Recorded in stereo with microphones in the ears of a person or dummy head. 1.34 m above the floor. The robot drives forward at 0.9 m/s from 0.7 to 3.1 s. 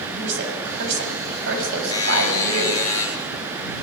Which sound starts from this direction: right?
A woman speaking, at 0.2 s.